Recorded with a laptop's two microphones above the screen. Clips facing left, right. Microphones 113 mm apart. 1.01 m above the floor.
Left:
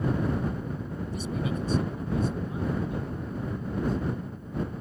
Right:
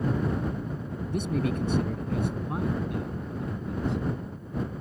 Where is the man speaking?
60° right (ahead or behind); by 4.1 s 70° right (ahead or behind).